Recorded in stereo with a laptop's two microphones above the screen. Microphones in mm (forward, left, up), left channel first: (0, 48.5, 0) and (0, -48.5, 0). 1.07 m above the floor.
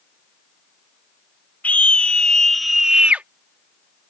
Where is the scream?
15° left (ahead or behind); by 3.2 s 20° right (ahead or behind).